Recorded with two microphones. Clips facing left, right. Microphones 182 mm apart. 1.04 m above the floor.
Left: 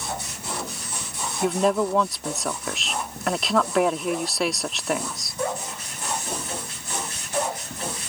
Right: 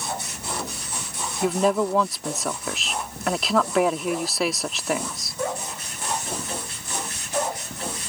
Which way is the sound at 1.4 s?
Centre (ahead or behind).